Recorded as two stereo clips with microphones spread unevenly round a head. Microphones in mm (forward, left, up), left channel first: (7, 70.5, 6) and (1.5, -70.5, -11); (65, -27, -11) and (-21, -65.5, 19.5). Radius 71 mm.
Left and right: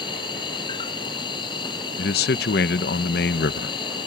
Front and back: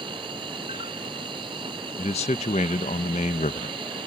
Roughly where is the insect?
Behind left.